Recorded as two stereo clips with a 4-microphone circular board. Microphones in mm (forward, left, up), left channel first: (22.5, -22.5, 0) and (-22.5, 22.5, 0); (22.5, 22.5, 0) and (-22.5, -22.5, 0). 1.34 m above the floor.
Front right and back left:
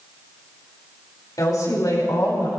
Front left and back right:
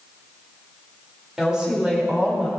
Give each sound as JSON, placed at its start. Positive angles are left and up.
{"t": 1.4, "sound": "a woman speaking", "azimuth_deg": -55, "distance_m": 5.5}